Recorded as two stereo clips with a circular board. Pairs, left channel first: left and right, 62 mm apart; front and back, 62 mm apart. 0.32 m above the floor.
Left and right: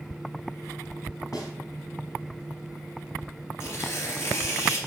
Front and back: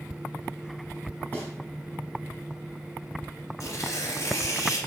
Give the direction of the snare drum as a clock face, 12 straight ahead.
10 o'clock.